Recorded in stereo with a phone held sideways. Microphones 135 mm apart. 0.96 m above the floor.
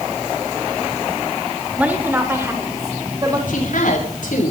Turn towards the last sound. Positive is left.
turn(degrees=75)  # may be behind; listen again after turning